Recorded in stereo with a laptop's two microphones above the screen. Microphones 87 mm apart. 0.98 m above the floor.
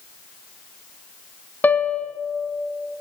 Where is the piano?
20° left (ahead or behind), 0.8 m.